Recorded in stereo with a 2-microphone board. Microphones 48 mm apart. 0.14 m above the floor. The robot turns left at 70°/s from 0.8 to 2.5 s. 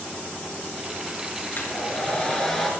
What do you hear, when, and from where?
1.5 s a hair dryer: 75° left, 2.5 m; by 2.7 s 5° left, 2.5 m